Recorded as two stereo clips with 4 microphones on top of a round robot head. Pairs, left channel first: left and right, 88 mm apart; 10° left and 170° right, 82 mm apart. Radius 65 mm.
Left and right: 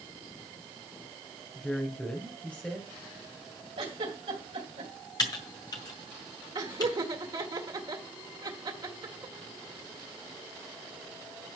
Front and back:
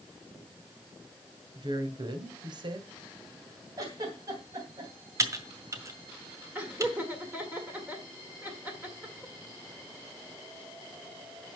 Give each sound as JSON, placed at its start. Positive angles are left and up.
{"t": 1.6, "sound": "a woman speaking", "azimuth_deg": 165, "distance_m": 2.0}
{"t": 3.8, "sound": "a giggle", "azimuth_deg": -120, "distance_m": 3.0}
{"t": 5.2, "sound": "typing on a keyboard", "azimuth_deg": 140, "distance_m": 1.8}
{"t": 6.5, "sound": "laughter", "azimuth_deg": -105, "distance_m": 1.7}